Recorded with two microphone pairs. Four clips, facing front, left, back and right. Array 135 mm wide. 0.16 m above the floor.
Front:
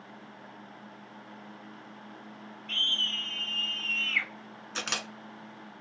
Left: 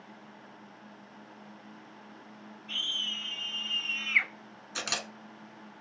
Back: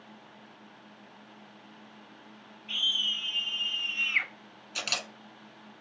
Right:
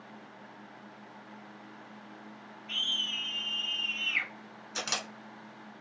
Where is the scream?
Straight ahead, 1.1 m; by 4.3 s 115° left, 1.1 m.